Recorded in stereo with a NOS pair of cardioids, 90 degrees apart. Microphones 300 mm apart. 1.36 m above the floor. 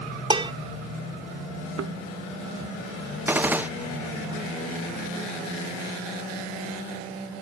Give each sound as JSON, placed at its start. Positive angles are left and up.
{"t": 0.3, "sound": "dishes clattering", "azimuth_deg": -15}
{"t": 1.8, "sound": "a thud", "azimuth_deg": -50}
{"t": 3.3, "sound": "a gunshot", "azimuth_deg": -5}